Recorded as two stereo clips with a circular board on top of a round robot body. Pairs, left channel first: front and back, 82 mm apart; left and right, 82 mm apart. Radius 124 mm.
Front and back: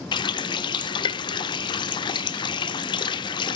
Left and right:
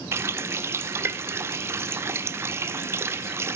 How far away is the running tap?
About 0.5 m.